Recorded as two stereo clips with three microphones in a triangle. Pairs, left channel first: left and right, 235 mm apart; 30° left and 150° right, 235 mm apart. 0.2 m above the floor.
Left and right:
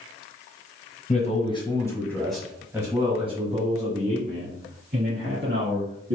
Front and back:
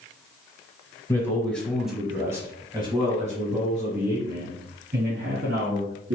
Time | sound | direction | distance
1.1 | a man speaking | 95° left | 1.4 m